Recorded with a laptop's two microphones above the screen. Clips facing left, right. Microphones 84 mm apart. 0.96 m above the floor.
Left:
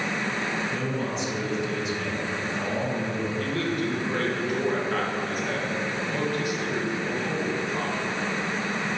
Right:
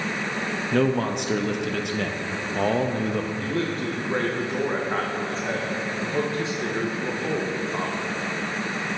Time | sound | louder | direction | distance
0.7 | a man speaking | right 7 dB | 60° right (ahead or behind) | 0.6 m
3.4 | a man speaking | right 1 dB | 25° right (ahead or behind) | 0.7 m